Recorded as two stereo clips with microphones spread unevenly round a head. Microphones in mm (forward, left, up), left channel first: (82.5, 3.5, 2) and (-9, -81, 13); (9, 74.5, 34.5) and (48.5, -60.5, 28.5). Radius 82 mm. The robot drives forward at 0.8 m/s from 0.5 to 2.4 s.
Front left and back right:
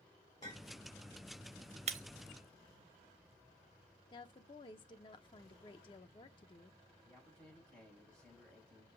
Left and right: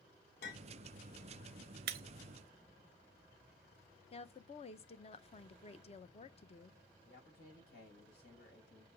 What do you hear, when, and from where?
0.4 s a clink: 115° left, 2.5 m; by 0.8 s 120° left, 3 m
1.9 s breaking glass: 105° right, 0.6 m; by 2.0 s 115° right, 0.6 m
4.1 s a woman speaking: 80° left, 0.7 m
7.0 s a man speaking: 130° left, 5.5 m